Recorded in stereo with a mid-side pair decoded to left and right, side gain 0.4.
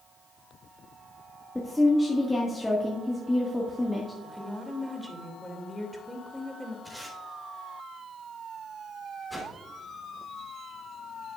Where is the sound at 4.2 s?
15° right, 2.5 m.